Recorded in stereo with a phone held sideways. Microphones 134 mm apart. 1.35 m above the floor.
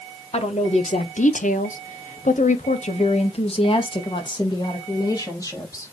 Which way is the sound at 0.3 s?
50° left (ahead or behind).